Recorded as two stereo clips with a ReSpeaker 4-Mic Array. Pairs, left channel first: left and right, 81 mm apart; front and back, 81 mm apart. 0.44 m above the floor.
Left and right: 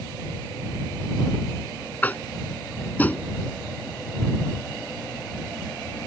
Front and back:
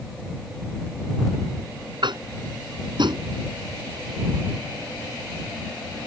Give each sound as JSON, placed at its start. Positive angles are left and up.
{"t": 2.0, "sound": "tapping", "azimuth_deg": 160}